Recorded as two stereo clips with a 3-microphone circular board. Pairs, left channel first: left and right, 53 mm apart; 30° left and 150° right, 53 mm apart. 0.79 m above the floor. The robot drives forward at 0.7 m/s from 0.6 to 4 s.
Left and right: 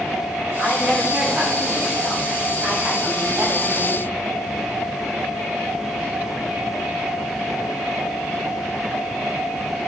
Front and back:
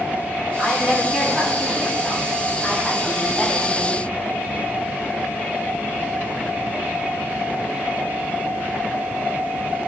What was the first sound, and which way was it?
A woman speaking, 40° right.